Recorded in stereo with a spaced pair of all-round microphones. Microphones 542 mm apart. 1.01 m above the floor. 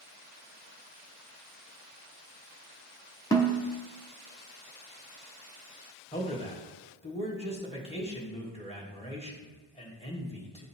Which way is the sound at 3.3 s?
5° left (ahead or behind).